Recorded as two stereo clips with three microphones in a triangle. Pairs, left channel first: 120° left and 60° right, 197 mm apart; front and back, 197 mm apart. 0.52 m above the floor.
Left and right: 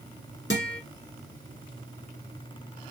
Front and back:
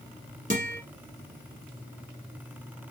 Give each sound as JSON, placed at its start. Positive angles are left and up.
{"t": 0.5, "sound": "a guitar", "azimuth_deg": 135, "distance_m": 1.1}